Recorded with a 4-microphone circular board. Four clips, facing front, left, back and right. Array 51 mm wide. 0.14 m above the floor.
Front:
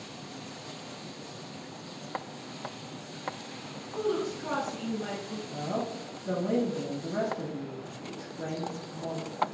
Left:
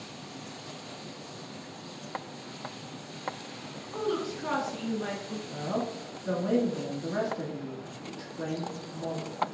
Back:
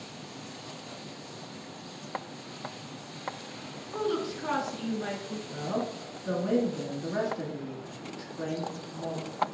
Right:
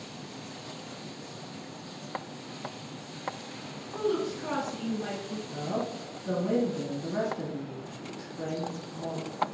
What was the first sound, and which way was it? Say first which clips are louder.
A woman speaking: right 2 dB, even; 155° left.